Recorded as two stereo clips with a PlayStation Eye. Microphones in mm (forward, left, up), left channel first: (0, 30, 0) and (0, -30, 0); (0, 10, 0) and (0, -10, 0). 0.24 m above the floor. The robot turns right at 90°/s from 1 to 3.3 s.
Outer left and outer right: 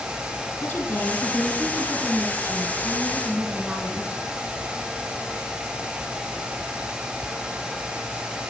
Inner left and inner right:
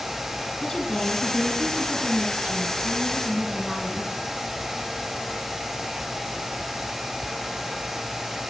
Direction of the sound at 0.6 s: 135° left.